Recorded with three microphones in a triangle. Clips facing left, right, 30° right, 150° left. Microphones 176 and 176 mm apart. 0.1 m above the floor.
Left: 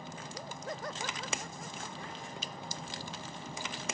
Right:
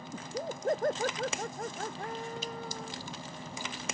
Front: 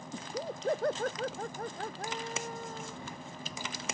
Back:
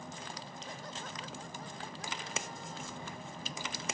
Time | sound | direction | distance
0.1 | laughter | 45° right | ?